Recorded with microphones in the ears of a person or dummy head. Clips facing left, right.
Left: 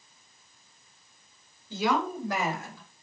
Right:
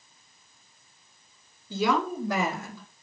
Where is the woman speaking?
75° right (ahead or behind), 4.5 m; by 3.0 s 65° right (ahead or behind), 3.5 m.